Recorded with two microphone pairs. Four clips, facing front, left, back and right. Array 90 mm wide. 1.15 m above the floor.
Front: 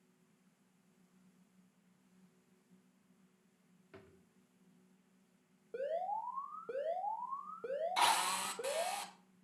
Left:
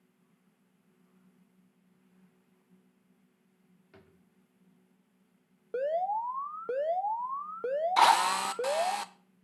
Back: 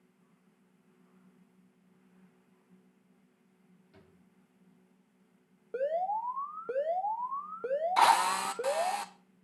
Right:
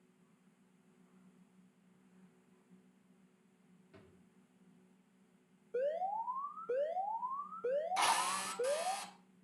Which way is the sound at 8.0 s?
120° left.